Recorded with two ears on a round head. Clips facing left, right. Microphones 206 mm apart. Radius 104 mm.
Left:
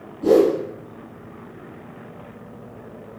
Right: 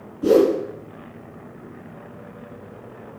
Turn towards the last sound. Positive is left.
turn(degrees=-20)  # may be behind; listen again after turning